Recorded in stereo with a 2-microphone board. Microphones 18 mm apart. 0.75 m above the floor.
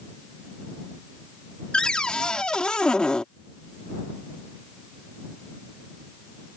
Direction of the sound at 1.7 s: 60° left (ahead or behind).